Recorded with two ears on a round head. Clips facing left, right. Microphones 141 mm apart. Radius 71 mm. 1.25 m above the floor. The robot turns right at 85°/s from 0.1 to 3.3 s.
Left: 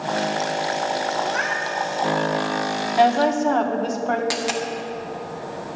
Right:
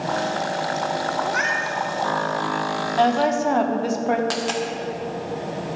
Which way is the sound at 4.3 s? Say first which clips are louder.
Even; 10° left (ahead or behind).